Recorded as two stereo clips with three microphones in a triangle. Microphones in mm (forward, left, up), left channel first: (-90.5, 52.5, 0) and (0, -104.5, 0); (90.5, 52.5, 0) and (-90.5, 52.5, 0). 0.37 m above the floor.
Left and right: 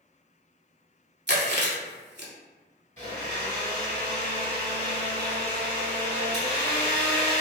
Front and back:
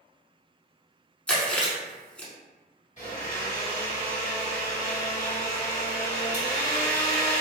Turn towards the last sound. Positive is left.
turn(degrees=-30)